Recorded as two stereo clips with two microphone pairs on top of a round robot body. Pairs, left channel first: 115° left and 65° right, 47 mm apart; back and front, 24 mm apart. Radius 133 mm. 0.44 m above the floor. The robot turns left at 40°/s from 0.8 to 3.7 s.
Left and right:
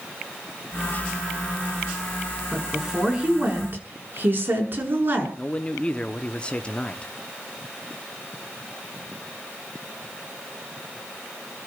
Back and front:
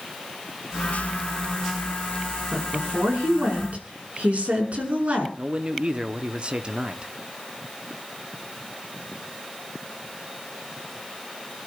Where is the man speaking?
40° left, 1.2 m.